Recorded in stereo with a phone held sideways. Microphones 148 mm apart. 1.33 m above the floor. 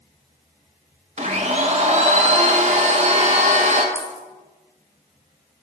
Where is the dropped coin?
15° left (ahead or behind), 2 m.